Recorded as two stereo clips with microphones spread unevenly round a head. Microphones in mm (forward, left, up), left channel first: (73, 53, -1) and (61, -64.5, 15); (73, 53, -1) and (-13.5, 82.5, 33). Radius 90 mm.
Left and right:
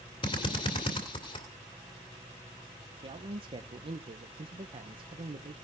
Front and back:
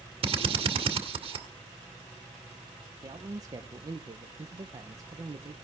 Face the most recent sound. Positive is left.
turn(degrees=-130)